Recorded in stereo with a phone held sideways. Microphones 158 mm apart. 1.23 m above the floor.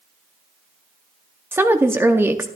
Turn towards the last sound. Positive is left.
turn(degrees=-15)  # may be behind; listen again after turning